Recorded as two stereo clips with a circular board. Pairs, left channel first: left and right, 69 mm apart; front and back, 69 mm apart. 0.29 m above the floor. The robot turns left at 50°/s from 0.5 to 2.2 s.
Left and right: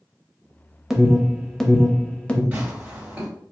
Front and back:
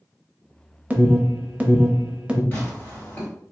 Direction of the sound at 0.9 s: 160° right.